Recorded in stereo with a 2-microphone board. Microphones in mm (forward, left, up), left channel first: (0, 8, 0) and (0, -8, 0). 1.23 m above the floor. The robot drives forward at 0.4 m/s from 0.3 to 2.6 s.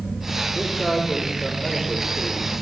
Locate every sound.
0.6 s a man speaking: 35° left (ahead or behind), 5.5 m; by 2.5 s 40° left (ahead or behind), 5 m